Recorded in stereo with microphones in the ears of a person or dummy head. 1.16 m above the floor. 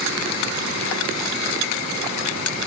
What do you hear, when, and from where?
Only background noise.